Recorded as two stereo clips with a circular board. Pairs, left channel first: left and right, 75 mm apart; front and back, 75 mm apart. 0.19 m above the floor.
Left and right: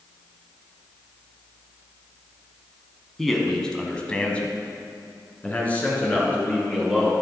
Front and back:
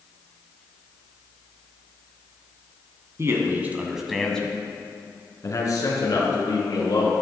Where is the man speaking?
175° left, 1.8 m; by 7.1 s 20° left, 4 m.